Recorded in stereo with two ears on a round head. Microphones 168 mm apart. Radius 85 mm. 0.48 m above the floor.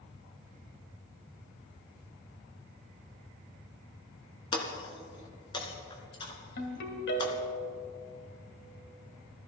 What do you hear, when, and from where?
4.5 s breaking glass: 25° left (ahead or behind), 1.8 m
6.6 s a ringtone: 60° left (ahead or behind), 2 m